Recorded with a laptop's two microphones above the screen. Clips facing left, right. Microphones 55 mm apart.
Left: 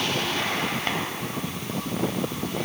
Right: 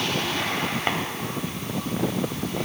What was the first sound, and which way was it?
Tapping, 20° right (ahead or behind).